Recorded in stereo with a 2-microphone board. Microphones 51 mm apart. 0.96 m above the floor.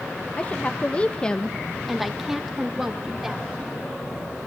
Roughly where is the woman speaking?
Left.